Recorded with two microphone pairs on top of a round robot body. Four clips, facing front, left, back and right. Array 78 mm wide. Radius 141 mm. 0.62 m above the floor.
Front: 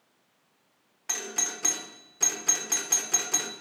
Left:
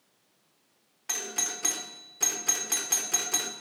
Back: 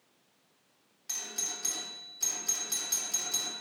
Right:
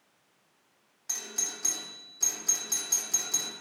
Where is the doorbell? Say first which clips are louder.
Left 6 dB, front 8 dB; 35° left, 2.5 m.